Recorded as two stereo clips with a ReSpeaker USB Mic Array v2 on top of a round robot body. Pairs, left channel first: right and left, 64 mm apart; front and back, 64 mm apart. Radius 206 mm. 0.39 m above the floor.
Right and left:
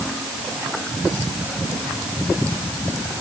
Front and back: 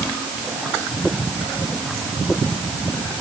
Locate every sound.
Only background noise.